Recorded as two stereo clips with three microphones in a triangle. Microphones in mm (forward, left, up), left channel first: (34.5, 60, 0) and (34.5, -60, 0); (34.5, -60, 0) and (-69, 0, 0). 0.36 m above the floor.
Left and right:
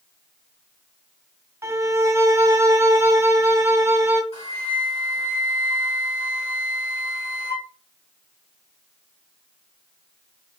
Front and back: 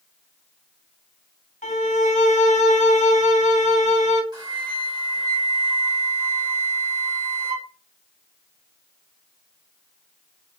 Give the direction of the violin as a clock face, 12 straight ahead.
1 o'clock.